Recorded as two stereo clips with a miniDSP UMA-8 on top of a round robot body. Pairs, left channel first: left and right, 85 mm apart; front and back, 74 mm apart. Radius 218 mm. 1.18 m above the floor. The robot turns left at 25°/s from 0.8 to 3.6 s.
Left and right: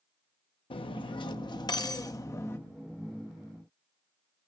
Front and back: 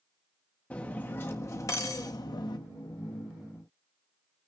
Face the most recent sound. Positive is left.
turn(degrees=5)